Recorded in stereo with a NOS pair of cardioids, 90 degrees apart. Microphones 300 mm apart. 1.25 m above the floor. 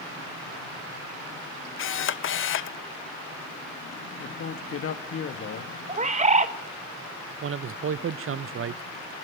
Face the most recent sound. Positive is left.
turn(degrees=-45)